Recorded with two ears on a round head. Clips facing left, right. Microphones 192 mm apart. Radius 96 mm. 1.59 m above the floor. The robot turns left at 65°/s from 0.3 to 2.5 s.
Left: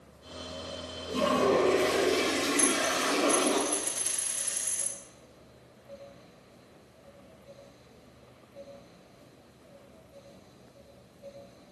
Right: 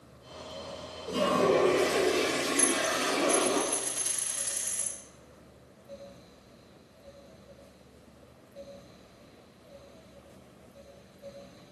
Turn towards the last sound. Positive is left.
turn(degrees=0)  # may be behind; listen again after turning